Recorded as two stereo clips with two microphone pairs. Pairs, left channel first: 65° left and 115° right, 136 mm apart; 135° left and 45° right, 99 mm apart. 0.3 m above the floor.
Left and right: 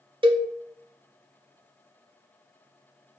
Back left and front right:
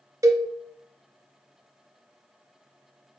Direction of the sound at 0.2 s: 85° right.